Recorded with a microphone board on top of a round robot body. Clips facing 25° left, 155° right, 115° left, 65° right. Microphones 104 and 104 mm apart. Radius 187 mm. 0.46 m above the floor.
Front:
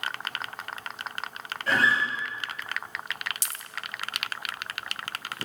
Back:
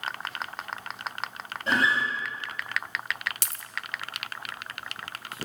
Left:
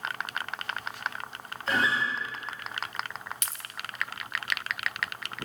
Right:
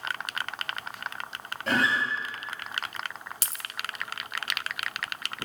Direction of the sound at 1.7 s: 90° right.